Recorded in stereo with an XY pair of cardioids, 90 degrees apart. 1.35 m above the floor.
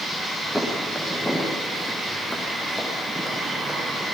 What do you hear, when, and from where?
0.6 s footsteps: 10° left, 5 m